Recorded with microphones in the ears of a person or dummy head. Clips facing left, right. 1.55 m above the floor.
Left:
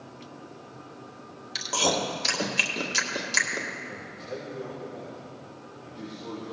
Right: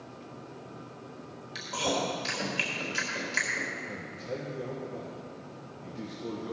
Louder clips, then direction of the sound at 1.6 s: Left 3 dB; 70° left (ahead or behind).